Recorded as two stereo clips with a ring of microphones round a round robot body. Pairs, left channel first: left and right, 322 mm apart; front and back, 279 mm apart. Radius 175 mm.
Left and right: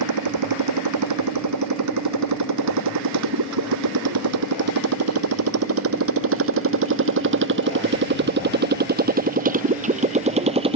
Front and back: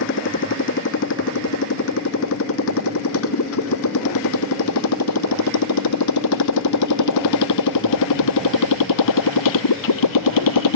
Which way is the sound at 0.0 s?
55° right.